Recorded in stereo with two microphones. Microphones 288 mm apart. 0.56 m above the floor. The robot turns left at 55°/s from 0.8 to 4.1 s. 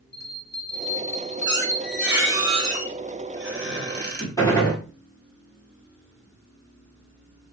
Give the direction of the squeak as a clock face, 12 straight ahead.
11 o'clock.